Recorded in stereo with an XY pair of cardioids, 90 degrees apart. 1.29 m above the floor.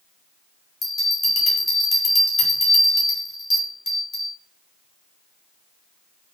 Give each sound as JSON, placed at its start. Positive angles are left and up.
{"t": 0.8, "sound": "a bell", "azimuth_deg": 50, "distance_m": 1.7}